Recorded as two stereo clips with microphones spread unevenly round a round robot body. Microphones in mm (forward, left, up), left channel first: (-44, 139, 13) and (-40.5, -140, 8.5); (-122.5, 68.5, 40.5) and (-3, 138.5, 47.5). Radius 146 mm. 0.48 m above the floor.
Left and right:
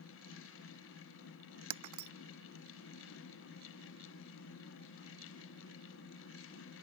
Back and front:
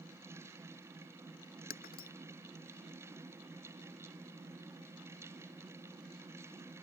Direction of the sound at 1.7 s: 110° right.